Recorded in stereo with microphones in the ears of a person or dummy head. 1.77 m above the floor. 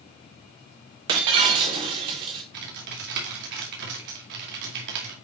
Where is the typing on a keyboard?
60° right (ahead or behind), 2.5 m.